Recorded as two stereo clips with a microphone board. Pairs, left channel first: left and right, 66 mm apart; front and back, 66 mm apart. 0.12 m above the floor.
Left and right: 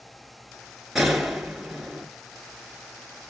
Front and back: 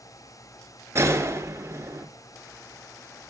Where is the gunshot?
175° right, 1.5 m.